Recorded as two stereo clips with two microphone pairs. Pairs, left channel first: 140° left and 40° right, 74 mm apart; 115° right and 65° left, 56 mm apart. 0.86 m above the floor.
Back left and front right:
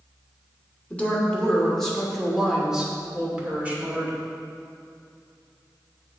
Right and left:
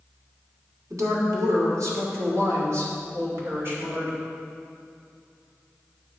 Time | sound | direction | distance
0.9 | a woman speaking | 70° left | 2.5 m